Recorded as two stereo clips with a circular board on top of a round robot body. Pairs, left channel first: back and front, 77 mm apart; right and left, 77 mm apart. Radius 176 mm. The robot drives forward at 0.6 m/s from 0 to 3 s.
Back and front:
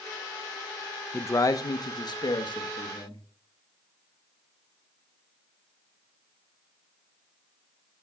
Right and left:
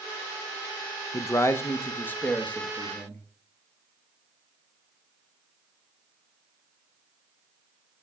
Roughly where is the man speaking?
Behind right.